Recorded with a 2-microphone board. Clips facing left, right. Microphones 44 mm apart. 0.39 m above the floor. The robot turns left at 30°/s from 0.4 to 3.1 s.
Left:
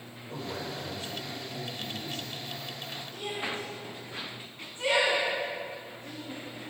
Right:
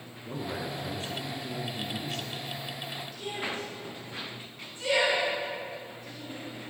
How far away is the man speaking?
About 5 m.